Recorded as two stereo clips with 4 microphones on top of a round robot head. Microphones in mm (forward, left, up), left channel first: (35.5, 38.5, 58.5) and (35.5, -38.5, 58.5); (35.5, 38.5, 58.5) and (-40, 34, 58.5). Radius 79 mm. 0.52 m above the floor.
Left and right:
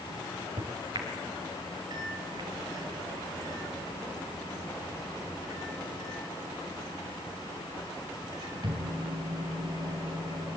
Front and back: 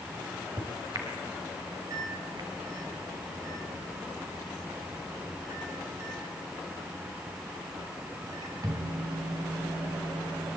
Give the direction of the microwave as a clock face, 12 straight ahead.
4 o'clock.